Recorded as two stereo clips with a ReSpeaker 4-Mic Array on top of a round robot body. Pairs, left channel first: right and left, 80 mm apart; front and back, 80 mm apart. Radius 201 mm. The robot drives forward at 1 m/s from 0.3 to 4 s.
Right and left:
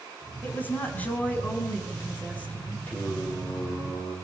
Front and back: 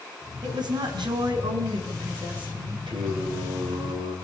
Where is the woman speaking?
160° right, 5 m; by 2.8 s 165° right, 7.5 m.